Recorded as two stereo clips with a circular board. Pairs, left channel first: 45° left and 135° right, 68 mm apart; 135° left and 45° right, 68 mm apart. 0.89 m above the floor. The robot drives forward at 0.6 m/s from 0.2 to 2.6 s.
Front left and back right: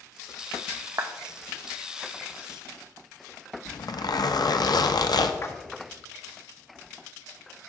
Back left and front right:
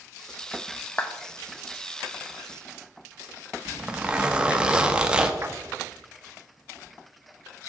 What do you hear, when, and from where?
1.0 s a clap: 165° right, 0.6 m
3.6 s a zipper: 30° left, 0.5 m
5.4 s a splash: 5° left, 0.6 m